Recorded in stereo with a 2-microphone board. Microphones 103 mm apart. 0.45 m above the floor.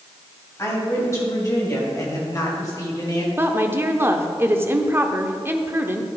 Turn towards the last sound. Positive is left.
turn(degrees=-25)  # may be behind; listen again after turning